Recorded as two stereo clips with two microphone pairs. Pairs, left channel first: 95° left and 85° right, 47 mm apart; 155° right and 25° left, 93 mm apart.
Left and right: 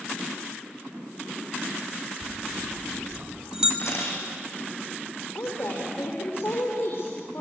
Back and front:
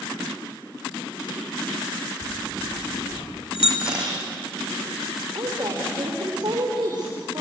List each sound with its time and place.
2.2 s a bell: 160° right, 4 m
3.8 s a camera shutter: 105° left, 5.5 m
5.3 s a woman speaking: 65° left, 6 m